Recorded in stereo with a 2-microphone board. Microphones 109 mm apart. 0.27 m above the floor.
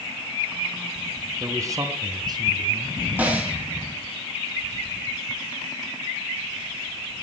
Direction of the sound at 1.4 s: 25° right (ahead or behind).